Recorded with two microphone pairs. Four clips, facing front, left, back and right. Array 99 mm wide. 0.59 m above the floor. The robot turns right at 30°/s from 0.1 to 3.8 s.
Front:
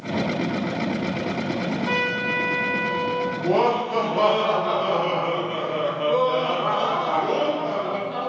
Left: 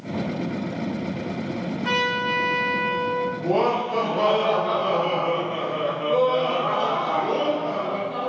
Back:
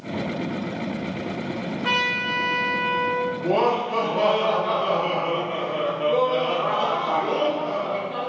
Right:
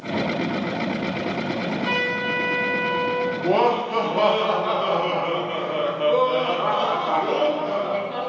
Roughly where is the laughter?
Right.